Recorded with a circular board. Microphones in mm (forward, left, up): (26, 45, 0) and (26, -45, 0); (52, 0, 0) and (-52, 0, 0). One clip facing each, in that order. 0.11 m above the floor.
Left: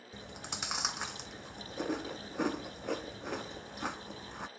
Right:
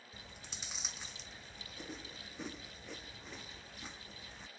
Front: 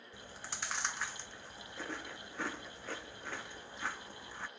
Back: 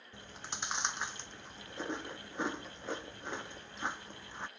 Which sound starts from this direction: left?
Chewing, at 0.1 s.